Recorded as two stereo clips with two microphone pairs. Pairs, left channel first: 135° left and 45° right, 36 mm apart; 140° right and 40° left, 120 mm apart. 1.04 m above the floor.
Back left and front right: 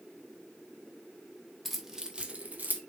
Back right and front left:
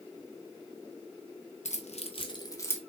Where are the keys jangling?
135° right, 0.7 m; by 2.8 s 75° right, 0.8 m.